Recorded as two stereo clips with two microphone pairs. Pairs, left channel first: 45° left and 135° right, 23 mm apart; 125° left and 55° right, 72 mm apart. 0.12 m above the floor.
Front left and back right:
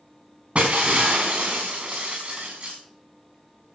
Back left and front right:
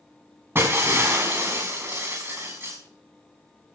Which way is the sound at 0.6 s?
110° right.